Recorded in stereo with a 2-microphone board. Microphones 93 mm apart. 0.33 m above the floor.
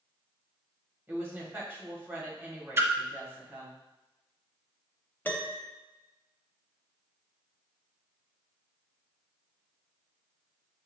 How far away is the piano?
About 0.7 m.